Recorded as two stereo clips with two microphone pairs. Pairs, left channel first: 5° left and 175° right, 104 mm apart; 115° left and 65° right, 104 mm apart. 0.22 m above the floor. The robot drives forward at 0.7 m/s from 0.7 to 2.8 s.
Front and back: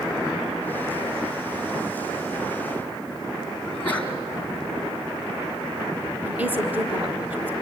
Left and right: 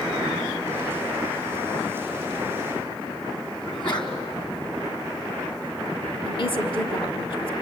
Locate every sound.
3.6 s a sneeze: 75° left, 3.5 m
6.2 s a woman speaking: 115° left, 1.7 m